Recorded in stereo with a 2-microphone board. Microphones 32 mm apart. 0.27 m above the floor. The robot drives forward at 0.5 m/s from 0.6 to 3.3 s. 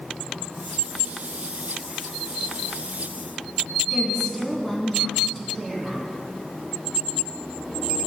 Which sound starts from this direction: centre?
A woman speaking, at 3.9 s.